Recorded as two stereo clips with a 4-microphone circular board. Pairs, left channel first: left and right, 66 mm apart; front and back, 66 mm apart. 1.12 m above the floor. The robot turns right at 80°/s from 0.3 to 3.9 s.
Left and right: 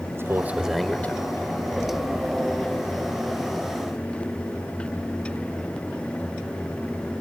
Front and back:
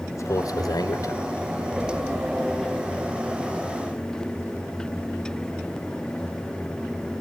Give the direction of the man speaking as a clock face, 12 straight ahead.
1 o'clock.